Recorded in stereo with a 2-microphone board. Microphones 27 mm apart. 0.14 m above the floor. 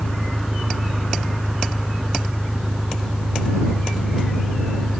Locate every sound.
0.0 s an engine running: 40° right (ahead or behind)